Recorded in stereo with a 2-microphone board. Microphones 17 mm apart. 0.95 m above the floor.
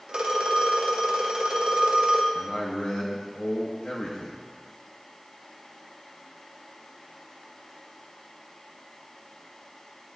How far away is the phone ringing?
About 0.8 m.